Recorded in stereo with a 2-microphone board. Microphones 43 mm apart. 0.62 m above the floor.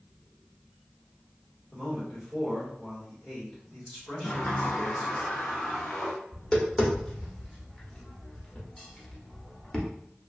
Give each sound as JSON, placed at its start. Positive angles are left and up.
{"t": 1.7, "sound": "a man speaking", "side_deg": 20, "distance_m": 1.5}
{"t": 4.2, "sound": "a sliding door", "side_deg": 45, "distance_m": 0.6}
{"t": 6.3, "sound": "tapping", "side_deg": 25, "distance_m": 0.8}